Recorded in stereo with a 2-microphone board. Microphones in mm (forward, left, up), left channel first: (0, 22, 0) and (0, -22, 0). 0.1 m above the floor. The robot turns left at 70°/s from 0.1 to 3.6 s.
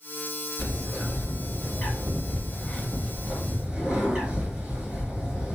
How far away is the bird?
About 1.4 m.